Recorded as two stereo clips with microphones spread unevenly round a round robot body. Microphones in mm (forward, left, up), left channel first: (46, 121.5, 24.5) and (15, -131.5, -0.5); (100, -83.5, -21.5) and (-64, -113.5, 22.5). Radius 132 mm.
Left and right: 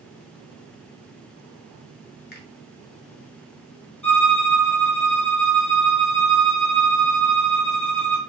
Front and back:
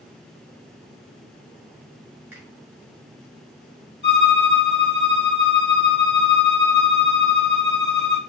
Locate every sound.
2.3 s a finger snap: 95° left, 0.9 m
4.0 s a violin: 5° right, 2.5 m